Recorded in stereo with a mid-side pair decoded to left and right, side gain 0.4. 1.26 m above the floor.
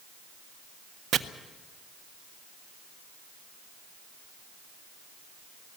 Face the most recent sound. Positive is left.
turn(degrees=-65)